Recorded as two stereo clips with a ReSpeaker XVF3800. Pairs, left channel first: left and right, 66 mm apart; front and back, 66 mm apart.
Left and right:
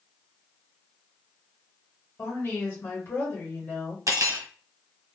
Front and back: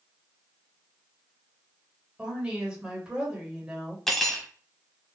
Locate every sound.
2.2 s a woman speaking: 115° left, 1.2 m
4.1 s cutlery clinking: 85° right, 0.8 m